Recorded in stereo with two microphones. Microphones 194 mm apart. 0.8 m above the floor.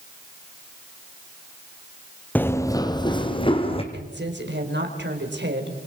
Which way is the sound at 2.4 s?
10° left (ahead or behind).